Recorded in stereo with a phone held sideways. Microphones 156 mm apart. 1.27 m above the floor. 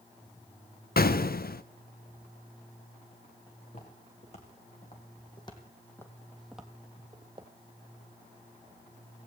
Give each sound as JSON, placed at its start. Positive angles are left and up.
{"t": 1.0, "sound": "an explosion", "side_deg": 75, "distance_m": 0.5}
{"t": 3.7, "sound": "footsteps", "side_deg": 50, "distance_m": 3.5}